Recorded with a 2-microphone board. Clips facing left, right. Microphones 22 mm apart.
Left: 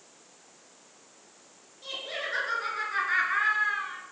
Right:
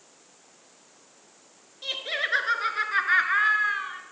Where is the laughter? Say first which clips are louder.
Right 6 dB; 45° right (ahead or behind), 2.5 m; by 4.0 s 15° right (ahead or behind), 2 m.